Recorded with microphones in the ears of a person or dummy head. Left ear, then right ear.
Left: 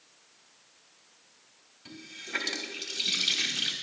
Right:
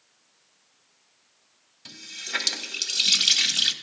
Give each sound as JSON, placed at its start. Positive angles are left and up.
{"t": 1.9, "sound": "a running tap", "side_deg": -55, "distance_m": 1.4}